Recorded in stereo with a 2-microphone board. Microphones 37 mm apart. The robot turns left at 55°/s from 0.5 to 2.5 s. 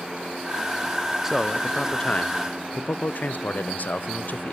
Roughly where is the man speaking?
Behind.